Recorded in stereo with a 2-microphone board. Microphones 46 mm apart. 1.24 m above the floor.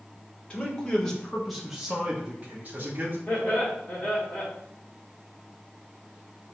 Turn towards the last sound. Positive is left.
turn(degrees=15)  # may be behind; listen again after turning